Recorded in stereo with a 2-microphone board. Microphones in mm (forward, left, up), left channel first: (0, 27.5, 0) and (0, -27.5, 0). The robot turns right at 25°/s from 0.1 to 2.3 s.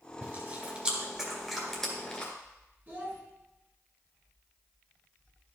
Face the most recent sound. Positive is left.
turn(degrees=-35)  # may be behind; listen again after turning